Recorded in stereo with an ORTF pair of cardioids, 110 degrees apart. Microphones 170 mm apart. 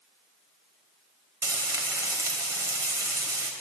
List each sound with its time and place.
1.4 s frying: 15° right, 1.4 m